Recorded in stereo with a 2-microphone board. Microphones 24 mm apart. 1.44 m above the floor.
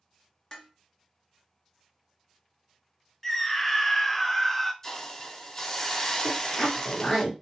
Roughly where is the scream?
Centre.